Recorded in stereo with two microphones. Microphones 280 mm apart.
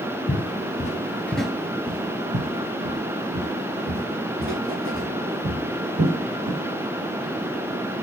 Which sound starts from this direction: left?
Footsteps, at 0.3 s.